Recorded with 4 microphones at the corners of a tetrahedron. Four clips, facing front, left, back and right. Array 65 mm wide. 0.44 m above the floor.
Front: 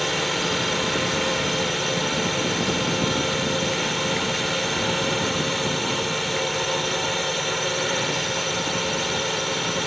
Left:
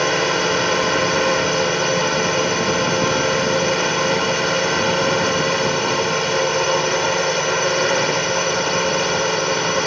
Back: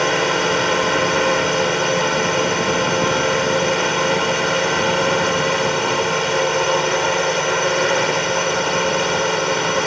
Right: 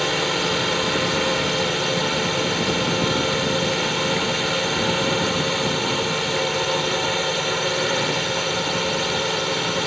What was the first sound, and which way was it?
A drone, 150° left.